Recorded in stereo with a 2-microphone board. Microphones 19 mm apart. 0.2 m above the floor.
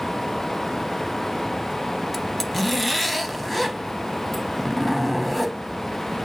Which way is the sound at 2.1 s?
10° left (ahead or behind).